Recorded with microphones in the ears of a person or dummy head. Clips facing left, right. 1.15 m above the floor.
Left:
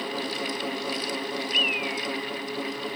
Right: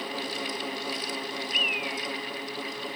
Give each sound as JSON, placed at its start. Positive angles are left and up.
{"t": 1.5, "sound": "a bird", "side_deg": 70, "distance_m": 1.2}